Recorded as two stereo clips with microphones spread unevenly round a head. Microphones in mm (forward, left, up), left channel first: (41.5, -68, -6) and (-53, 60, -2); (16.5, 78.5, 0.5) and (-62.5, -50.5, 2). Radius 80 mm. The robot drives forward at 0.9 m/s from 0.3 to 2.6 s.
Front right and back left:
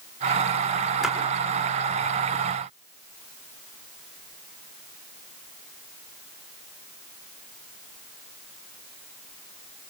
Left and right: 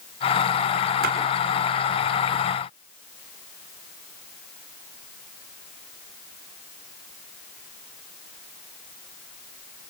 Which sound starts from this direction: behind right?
A splash, at 1.0 s.